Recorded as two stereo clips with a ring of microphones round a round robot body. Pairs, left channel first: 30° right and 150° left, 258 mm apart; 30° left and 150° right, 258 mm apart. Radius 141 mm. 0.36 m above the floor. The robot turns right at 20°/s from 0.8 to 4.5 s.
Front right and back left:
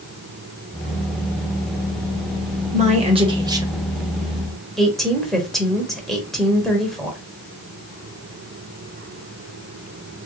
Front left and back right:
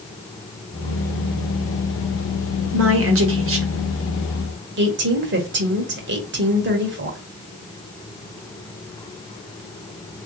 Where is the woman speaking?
155° right, 1.4 m; by 7.2 s 120° right, 1.4 m.